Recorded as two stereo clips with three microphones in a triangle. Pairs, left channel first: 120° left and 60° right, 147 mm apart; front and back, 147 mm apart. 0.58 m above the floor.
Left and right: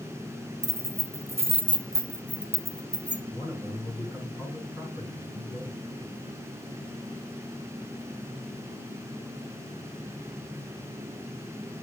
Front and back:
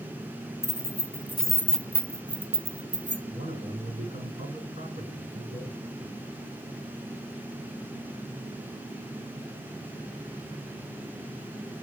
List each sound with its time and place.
0.6 s keys jangling: 25° right, 0.8 m; by 3.2 s 160° right, 0.8 m
3.3 s a man speaking: 165° right, 4.5 m